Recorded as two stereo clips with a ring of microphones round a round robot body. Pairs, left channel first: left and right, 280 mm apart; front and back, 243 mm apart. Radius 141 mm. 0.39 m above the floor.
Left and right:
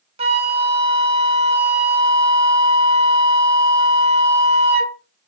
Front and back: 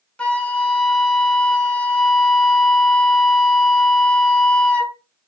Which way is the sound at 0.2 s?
80° right.